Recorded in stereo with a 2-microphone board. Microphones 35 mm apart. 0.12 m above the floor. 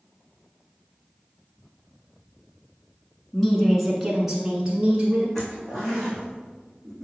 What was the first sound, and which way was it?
A woman speaking, 10° left (ahead or behind).